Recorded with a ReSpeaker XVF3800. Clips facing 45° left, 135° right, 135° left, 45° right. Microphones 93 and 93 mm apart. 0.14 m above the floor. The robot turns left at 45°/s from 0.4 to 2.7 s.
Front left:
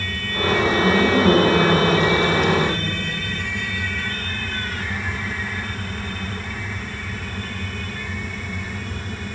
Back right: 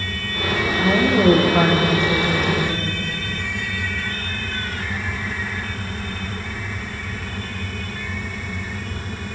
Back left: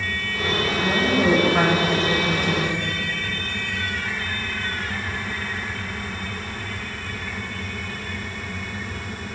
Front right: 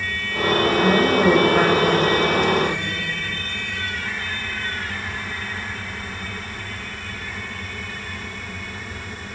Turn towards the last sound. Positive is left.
turn(degrees=165)